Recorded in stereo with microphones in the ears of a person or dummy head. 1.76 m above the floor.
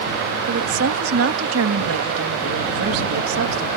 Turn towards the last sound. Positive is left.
turn(degrees=-85)